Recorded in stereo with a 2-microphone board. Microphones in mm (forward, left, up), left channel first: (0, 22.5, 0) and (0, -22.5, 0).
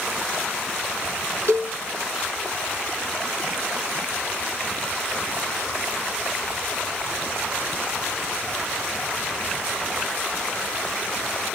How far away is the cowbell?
About 1.5 m.